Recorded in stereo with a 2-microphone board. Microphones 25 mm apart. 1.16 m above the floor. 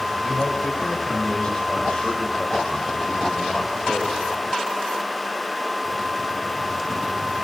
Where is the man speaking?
50° left (ahead or behind), 4.5 m.